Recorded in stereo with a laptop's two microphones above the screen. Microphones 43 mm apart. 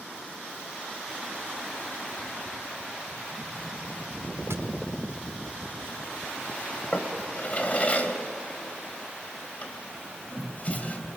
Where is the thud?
80° right, 4 m.